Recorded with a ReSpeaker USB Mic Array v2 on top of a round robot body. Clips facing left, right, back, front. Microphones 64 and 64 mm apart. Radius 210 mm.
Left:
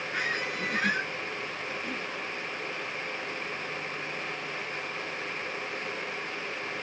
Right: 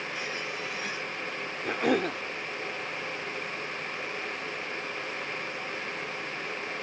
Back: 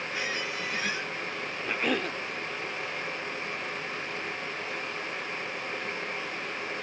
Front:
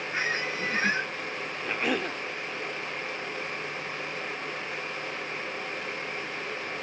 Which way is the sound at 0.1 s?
55° left.